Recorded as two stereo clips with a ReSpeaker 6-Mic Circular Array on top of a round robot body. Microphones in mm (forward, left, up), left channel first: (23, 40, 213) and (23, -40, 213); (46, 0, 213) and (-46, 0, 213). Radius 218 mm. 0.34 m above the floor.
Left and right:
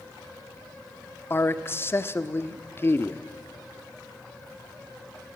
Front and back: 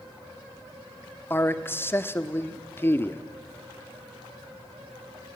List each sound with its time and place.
1.3 s a man speaking: 50° left, 1.4 m